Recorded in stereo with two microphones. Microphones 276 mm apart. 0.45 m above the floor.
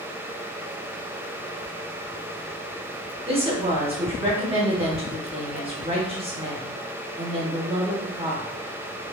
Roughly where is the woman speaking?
Centre.